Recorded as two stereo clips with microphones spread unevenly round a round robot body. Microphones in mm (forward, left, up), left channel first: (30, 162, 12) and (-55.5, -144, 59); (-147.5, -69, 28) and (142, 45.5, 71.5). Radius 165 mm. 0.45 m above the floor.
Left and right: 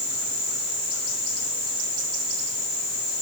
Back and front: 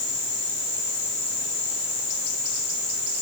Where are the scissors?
I don't hear scissors.